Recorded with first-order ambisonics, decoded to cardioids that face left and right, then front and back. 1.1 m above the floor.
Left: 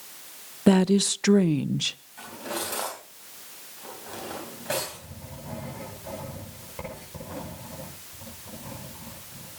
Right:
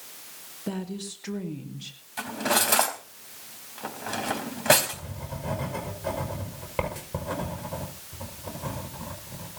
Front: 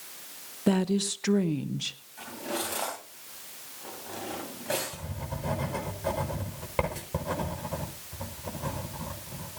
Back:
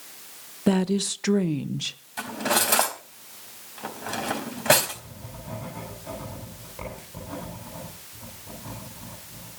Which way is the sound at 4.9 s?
40° right.